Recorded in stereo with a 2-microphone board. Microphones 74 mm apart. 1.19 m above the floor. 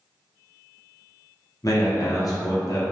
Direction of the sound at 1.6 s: 50° left (ahead or behind).